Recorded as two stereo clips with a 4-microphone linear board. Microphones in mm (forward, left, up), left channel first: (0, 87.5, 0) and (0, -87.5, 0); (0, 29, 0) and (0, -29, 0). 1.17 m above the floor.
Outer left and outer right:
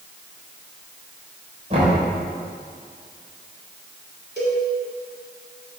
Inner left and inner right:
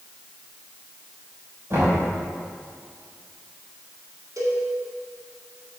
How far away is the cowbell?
About 2.0 m.